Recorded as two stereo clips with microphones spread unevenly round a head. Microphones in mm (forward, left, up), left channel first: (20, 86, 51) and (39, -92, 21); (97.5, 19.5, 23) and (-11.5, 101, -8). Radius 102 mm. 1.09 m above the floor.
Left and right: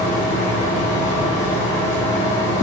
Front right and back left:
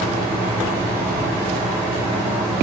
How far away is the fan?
About 0.9 m.